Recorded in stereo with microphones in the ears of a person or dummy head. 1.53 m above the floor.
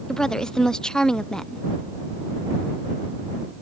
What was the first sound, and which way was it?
A woman speaking, 5° left (ahead or behind).